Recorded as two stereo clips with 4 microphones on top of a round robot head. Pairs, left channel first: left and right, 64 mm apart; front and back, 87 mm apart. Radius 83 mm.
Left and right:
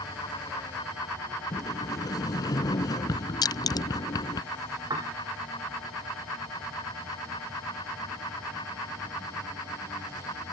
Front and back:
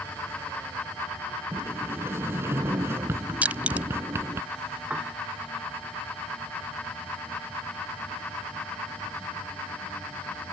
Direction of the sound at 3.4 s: 105° left.